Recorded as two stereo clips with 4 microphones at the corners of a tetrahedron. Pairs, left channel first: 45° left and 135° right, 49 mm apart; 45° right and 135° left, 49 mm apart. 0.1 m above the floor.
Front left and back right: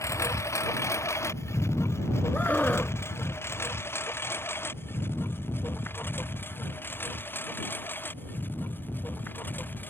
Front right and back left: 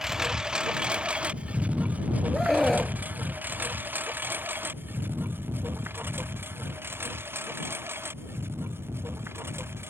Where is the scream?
30° left.